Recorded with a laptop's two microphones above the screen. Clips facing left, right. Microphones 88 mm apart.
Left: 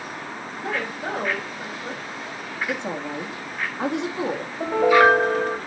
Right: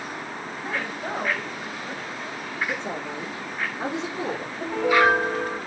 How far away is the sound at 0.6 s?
About 3.5 m.